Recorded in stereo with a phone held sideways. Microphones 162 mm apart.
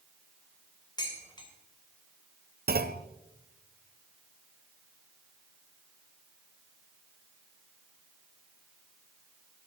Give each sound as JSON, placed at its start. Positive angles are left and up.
{"t": 1.0, "sound": "dishes clattering", "side_deg": 25, "distance_m": 3.0}
{"t": 2.7, "sound": "a clunk", "side_deg": -70, "distance_m": 0.7}